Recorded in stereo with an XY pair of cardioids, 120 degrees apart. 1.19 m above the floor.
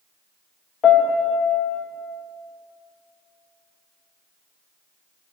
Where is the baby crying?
No baby crying in this recording.